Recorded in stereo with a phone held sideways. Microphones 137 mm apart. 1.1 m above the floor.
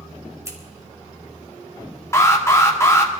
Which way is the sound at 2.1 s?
20° left (ahead or behind).